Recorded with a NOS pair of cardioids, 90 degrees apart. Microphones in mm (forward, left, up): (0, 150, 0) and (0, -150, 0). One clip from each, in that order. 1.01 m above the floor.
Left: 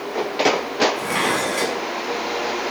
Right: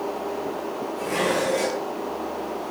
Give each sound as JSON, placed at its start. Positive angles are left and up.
{"t": 1.0, "sound": "dishes clattering", "azimuth_deg": 60, "distance_m": 6.5}